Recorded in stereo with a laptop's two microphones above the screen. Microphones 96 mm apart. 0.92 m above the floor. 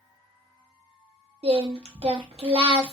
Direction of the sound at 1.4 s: 80° right.